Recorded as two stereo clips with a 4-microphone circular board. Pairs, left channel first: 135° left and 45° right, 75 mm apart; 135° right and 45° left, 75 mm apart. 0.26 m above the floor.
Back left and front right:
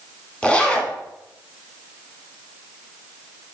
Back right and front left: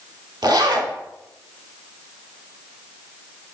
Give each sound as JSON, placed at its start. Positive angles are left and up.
{"t": 0.4, "sound": "a zipper", "azimuth_deg": 60, "distance_m": 0.6}